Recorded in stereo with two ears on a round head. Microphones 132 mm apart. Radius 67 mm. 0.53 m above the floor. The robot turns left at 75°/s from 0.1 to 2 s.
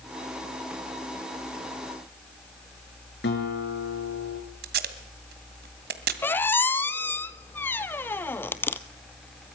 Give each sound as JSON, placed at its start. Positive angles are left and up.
{"t": 3.2, "sound": "a guitar", "side_deg": 80, "distance_m": 6.0}
{"t": 4.6, "sound": "tape being pulled", "side_deg": -65, "distance_m": 2.0}
{"t": 6.2, "sound": "a squeak", "side_deg": 15, "distance_m": 1.0}